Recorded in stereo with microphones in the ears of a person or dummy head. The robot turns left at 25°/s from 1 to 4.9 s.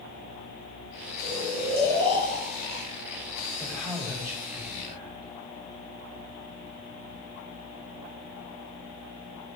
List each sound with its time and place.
1.2 s snoring: 125° right, 3.5 m; by 2.9 s 165° right, 3.5 m
3.6 s a man speaking: straight ahead, 4 m; by 5.3 s 30° right, 4 m